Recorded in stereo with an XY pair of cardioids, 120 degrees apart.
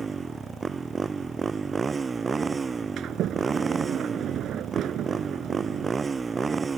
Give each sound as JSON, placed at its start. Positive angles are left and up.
{"t": 0.0, "sound": "a motorcycle", "azimuth_deg": -30}
{"t": 3.0, "sound": "a sliding door", "azimuth_deg": -60}